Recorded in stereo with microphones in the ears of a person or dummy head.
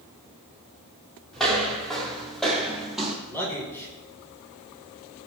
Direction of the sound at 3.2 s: 15° left (ahead or behind).